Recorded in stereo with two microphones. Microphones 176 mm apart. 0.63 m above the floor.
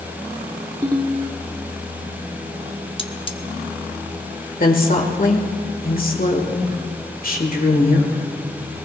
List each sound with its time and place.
0.8 s a ringtone: 25° right (ahead or behind), 1.0 m
3.0 s cutlery clinking: 30° left (ahead or behind), 0.8 m
4.6 s a woman speaking: 55° left (ahead or behind), 1.8 m